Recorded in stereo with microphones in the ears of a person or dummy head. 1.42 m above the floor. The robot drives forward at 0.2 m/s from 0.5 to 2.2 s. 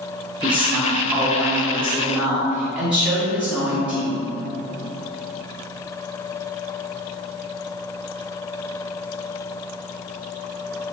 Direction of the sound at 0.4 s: 5° right (ahead or behind).